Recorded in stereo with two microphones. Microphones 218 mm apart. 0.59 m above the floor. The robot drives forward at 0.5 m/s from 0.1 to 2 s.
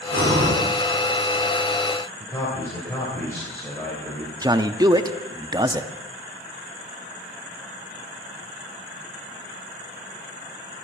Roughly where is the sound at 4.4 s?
Centre.